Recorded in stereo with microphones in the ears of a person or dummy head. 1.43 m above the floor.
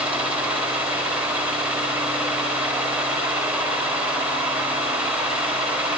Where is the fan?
5° right (ahead or behind), 3 m.